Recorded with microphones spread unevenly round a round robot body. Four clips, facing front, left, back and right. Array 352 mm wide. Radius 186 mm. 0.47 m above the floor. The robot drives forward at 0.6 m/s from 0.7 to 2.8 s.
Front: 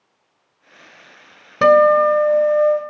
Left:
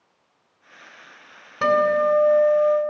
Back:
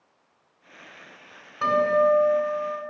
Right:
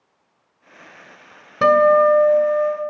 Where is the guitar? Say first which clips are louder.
Right 6 dB, front 9 dB; 25° right, 2.5 m; by 2.8 s 40° right, 1.8 m.